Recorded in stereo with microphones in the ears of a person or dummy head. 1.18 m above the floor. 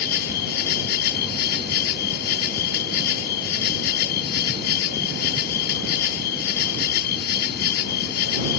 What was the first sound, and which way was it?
An insect, 60° left (ahead or behind).